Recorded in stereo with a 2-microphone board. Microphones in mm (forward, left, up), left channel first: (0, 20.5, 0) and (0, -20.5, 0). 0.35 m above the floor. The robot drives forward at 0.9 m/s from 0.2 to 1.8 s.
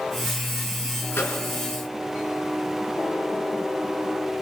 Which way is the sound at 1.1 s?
65° left (ahead or behind).